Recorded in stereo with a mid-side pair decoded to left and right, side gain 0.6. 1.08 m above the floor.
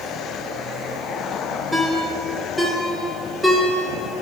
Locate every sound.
1.7 s a ringtone: 10° right, 2 m